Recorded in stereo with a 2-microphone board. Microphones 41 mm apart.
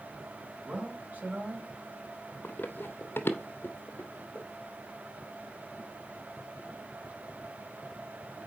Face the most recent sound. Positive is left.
turn(degrees=35)  # may be behind; listen again after turning